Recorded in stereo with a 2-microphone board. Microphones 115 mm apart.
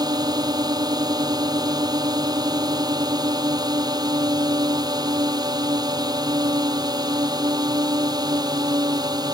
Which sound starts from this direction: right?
A drone, at 0.0 s.